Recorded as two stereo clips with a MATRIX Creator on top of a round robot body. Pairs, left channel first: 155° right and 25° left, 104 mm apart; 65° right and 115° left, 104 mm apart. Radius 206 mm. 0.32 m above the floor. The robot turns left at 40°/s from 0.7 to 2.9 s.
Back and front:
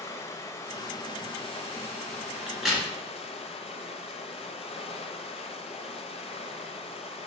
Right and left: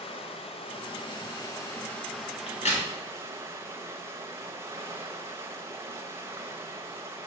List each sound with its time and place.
0.0 s running water: 95° right, 0.7 m; by 7.3 s straight behind, 0.7 m
2.5 s a crack: 55° right, 2 m; by 2.9 s 75° right, 2 m